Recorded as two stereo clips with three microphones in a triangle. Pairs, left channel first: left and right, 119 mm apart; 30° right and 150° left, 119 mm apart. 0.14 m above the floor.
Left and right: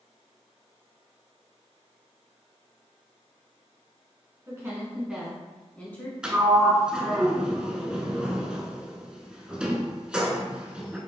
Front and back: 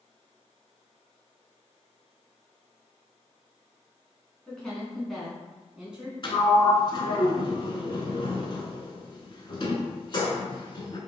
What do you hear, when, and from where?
4.5 s a woman speaking: 105° right, 1.3 m; by 6.1 s 85° left, 1.3 m
6.2 s a sliding door: 10° right, 0.6 m